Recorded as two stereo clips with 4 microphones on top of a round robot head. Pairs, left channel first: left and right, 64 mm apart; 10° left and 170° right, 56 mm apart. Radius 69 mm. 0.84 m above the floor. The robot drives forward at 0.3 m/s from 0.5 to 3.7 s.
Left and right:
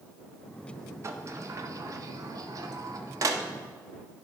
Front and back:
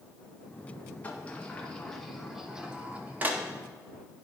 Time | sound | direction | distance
1.0 | a sliding door | 50° right | 0.8 m